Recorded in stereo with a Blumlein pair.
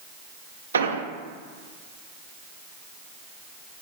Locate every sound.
0.7 s an explosion: 70° right, 0.6 m